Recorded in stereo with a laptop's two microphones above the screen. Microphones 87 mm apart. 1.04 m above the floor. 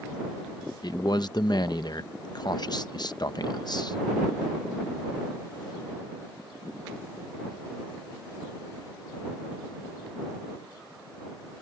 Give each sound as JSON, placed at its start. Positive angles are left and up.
{"t": 0.8, "sound": "a man speaking", "side_deg": 50}